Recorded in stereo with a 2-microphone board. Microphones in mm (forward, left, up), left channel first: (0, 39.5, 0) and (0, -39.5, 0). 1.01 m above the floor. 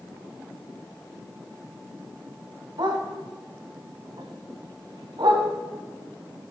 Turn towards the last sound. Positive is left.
turn(degrees=-75)  # may be behind; listen again after turning